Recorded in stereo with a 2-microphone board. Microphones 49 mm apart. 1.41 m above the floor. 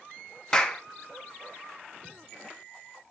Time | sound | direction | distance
0.5 | a clap | 15° left (ahead or behind) | 0.9 m